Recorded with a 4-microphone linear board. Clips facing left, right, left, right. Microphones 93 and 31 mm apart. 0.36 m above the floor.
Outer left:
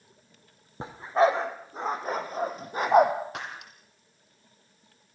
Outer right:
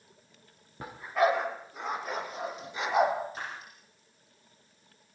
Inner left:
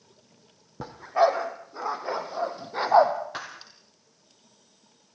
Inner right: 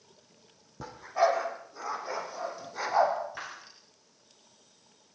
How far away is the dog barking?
About 4 m.